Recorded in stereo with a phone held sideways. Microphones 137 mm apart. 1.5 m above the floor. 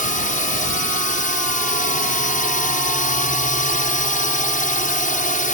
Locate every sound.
0.0 s a drone: 75° left (ahead or behind)